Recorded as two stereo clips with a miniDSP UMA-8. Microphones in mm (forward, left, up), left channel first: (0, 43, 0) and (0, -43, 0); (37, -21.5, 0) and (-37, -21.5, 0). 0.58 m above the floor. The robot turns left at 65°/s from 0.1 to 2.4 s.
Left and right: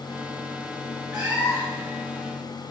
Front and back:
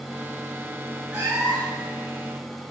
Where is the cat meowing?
115° right, 1.7 m; by 1.9 s 165° right, 1.7 m.